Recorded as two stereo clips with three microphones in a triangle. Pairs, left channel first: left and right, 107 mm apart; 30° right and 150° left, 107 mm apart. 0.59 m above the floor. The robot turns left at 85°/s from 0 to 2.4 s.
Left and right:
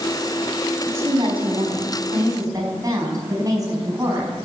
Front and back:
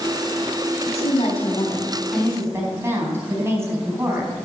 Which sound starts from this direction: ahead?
A woman speaking, at 0.9 s.